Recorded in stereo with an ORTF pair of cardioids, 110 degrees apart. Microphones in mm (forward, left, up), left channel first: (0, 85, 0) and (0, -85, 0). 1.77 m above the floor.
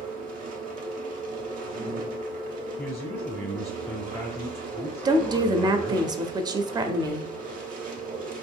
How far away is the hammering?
I don't hear hammering.